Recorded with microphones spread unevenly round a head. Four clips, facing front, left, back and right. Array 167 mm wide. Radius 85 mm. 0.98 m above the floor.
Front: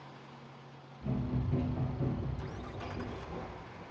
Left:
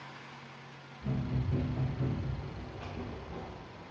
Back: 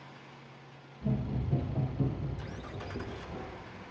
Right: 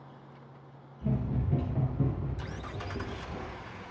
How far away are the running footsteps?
About 4.5 m.